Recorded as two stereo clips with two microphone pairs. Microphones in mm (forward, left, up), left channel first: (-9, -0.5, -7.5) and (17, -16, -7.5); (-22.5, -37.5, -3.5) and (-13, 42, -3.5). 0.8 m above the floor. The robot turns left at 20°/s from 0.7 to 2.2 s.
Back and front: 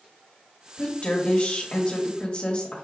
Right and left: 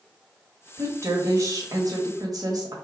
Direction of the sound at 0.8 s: 130° left.